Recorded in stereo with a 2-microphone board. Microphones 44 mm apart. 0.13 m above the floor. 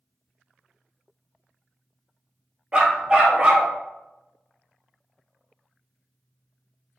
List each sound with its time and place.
2.7 s a dog barking: 25° right (ahead or behind), 0.7 m